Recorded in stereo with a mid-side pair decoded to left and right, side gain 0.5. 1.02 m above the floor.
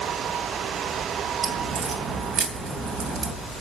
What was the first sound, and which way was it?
A crack, 55° right.